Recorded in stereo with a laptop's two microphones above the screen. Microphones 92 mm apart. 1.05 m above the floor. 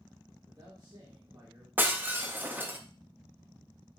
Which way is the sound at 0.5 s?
55° right (ahead or behind).